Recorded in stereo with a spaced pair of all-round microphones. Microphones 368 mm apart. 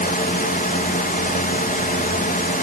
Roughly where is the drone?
Left.